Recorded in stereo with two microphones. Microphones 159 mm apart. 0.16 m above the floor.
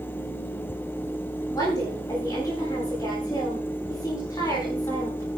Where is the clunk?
I don't hear a clunk.